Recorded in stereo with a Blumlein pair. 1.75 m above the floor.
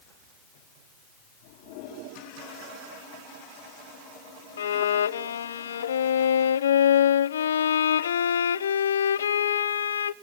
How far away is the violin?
About 0.8 m.